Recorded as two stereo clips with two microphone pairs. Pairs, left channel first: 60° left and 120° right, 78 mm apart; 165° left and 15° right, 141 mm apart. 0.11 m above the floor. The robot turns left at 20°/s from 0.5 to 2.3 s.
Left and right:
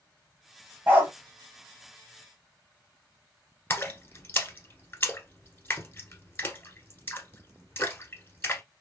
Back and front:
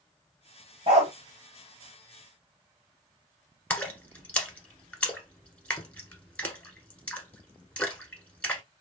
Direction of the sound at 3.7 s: 95° left.